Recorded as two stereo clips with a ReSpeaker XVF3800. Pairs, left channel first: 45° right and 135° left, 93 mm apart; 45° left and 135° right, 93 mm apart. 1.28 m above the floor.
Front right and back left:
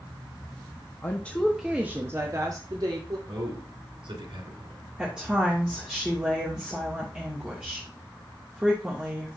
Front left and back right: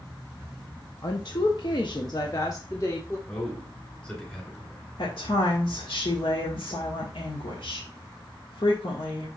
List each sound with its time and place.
1.0 s a woman speaking: 10° left, 0.9 m; by 3.2 s 100° left, 1.8 m
3.3 s a man speaking: 120° left, 4 m
5.0 s a woman speaking: 55° left, 1.6 m